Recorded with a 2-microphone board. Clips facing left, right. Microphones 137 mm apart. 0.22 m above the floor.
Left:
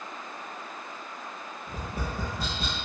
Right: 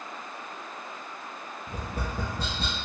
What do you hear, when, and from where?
1.7 s tapping: 40° right (ahead or behind), 1.7 m